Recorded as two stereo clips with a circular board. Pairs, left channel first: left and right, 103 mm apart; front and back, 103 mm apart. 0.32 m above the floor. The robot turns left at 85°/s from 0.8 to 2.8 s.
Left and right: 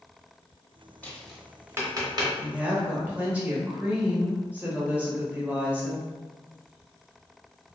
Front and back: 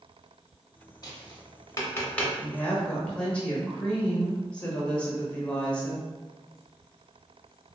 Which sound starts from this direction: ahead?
A woman speaking, at 2.4 s.